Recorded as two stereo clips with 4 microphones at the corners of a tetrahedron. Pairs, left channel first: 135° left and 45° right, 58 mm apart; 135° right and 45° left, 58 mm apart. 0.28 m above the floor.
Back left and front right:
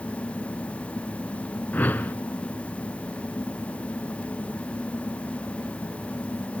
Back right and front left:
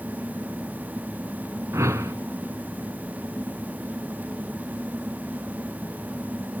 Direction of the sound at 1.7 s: 75° left.